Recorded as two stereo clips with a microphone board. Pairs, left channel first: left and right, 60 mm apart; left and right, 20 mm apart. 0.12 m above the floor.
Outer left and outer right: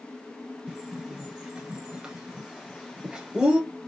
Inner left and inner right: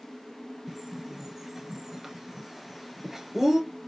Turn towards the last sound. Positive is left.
turn(degrees=-15)  # may be behind; listen again after turning